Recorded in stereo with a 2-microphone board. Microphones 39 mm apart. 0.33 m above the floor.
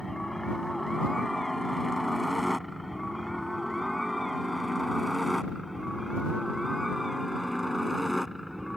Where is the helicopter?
5° left (ahead or behind); by 8.8 s 5° right (ahead or behind).